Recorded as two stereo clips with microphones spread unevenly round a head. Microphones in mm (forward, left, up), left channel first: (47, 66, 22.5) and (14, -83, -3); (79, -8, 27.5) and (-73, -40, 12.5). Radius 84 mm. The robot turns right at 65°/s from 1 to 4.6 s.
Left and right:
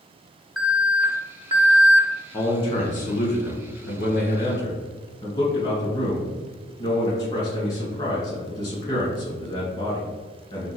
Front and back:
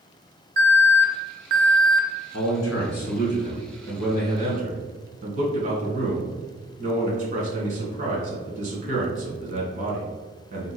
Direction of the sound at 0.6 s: 160° left.